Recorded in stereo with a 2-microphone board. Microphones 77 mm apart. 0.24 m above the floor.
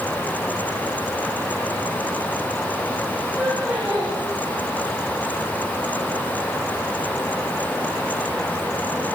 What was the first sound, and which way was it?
Laughter, centre (ahead or behind).